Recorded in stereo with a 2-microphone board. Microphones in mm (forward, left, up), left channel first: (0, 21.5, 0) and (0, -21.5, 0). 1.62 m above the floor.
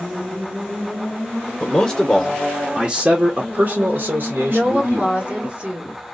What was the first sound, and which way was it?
A man speaking, 30° left (ahead or behind).